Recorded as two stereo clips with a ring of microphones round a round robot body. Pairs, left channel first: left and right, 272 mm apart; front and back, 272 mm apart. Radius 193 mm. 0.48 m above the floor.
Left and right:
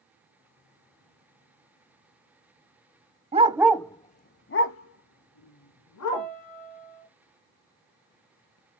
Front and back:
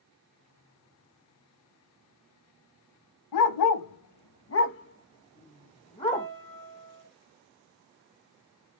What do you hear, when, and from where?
3.3 s a dog barking: 20° right, 0.7 m; by 6.3 s 75° left, 1.5 m
6.1 s a piano: 70° left, 1.5 m